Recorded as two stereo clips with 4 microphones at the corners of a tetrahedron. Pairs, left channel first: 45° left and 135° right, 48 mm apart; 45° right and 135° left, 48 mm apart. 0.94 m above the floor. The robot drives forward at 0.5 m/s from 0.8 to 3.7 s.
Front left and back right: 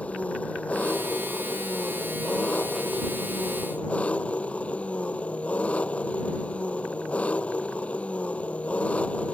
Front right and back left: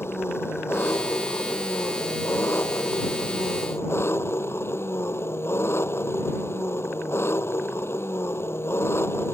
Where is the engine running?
15° right; by 9.3 s 20° right.